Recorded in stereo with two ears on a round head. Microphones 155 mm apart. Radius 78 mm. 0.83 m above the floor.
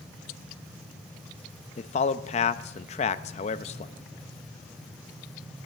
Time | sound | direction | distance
1.8 | a man speaking | 40° left (ahead or behind) | 0.5 m